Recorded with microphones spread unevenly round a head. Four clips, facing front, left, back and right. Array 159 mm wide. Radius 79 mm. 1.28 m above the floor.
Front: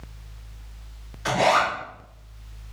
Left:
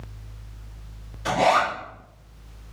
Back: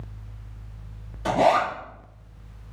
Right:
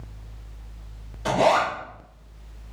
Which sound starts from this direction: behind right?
A zipper, at 1.2 s.